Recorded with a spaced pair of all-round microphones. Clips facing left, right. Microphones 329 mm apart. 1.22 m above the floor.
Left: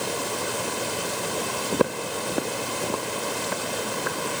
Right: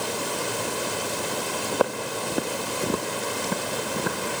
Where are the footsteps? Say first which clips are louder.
Left 2 dB; 30° left (ahead or behind), 1.5 m; by 4.4 s 50° right (ahead or behind), 3 m.